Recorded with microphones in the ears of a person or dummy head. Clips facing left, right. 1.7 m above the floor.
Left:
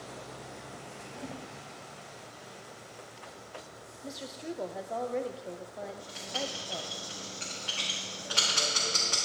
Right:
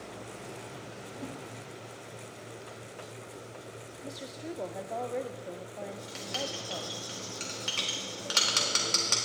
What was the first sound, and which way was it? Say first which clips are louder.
A whoosh: even; 15° right (ahead or behind).